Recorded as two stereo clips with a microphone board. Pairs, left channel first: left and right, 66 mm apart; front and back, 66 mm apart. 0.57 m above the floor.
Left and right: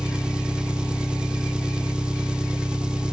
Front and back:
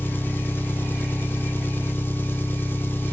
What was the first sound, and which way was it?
An engine running, 25° right.